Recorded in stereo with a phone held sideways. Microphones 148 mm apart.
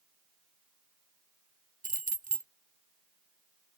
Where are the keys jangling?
65° right (ahead or behind).